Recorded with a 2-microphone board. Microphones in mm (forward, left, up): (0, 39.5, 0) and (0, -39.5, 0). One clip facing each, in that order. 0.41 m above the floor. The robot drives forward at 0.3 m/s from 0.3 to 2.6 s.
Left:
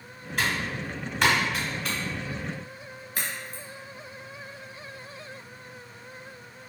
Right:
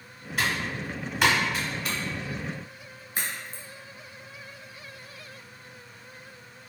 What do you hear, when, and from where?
0.4 s typing on a keyboard: centre (ahead or behind), 0.7 m
3.1 s a crack: 30° right (ahead or behind), 0.7 m